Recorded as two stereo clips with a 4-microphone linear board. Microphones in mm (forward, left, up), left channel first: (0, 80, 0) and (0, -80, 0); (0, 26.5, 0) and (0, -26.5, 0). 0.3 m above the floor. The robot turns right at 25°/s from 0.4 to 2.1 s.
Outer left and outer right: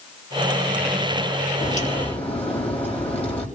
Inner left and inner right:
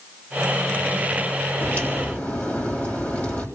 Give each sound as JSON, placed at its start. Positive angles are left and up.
{"t": 1.6, "sound": "a crack", "side_deg": 50, "distance_m": 3.5}